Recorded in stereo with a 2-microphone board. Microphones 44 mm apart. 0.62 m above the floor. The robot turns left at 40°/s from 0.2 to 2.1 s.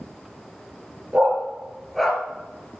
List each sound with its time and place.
1.1 s a dog barking: 30° right (ahead or behind), 3 m; by 2.2 s 10° left (ahead or behind), 3 m